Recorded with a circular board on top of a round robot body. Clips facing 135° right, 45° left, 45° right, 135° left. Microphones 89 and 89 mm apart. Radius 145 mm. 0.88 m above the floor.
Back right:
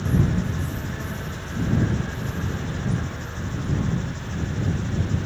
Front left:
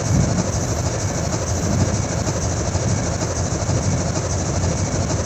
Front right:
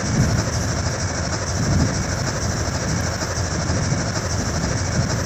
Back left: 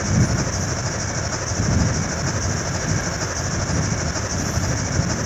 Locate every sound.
0.0 s an engine running: 40° left